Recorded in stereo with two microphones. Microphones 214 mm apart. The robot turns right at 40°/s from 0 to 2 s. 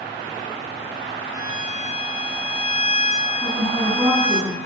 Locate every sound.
1.3 s a violin: 15° right (ahead or behind), 0.7 m; by 4.4 s 35° right (ahead or behind), 0.7 m
3.4 s a woman speaking: 15° right (ahead or behind), 1.7 m